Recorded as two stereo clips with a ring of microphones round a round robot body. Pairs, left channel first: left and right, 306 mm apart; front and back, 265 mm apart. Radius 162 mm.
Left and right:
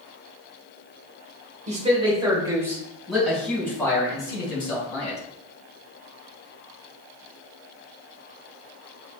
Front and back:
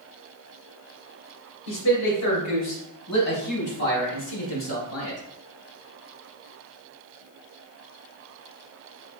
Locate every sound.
1.7 s a man speaking: 25° right, 3 m; by 5.2 s 20° left, 4.5 m